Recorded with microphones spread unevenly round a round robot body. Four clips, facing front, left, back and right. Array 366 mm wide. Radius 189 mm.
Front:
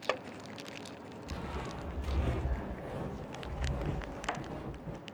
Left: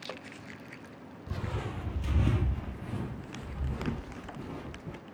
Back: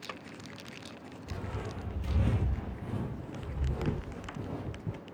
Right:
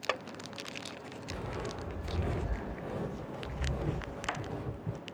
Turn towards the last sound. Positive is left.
turn(degrees=-175)